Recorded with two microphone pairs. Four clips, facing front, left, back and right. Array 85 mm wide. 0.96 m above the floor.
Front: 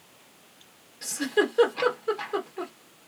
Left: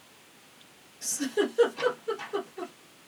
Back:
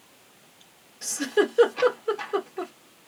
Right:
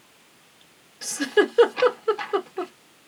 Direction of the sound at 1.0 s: 80° right.